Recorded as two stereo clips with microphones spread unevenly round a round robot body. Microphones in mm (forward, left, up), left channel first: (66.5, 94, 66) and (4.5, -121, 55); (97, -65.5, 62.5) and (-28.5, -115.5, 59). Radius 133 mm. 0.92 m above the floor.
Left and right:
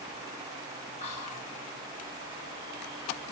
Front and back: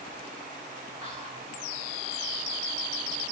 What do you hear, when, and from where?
1.0 s whispering: 135° left, 1.0 m